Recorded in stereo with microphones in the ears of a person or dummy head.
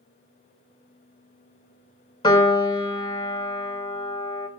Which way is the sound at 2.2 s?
20° left (ahead or behind).